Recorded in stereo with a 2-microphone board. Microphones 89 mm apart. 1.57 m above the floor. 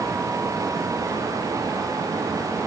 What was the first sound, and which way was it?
Only background noise.